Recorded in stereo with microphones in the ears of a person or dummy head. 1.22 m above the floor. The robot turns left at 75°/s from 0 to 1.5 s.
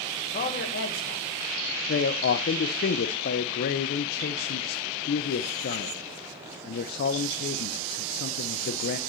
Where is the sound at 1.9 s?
55° left (ahead or behind), 0.5 m.